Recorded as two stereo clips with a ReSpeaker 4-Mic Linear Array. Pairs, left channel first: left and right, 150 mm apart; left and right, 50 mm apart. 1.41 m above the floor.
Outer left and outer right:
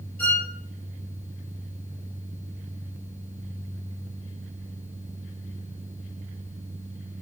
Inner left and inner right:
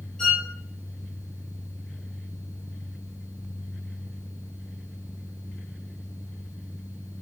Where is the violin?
10° left (ahead or behind), 0.7 m.